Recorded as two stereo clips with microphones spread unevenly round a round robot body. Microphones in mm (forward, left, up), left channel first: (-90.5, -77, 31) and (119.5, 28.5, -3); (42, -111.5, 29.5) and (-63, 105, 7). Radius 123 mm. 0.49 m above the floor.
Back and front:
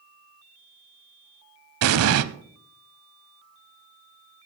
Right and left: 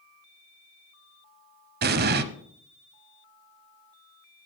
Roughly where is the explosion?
Ahead left.